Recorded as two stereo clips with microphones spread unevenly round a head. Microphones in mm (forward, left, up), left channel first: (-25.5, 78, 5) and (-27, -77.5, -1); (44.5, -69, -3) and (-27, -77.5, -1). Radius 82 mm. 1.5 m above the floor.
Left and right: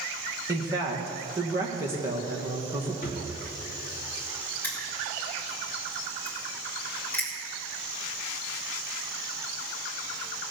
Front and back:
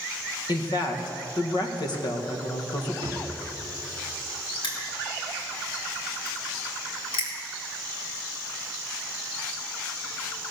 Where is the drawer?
45° left, 1.9 m.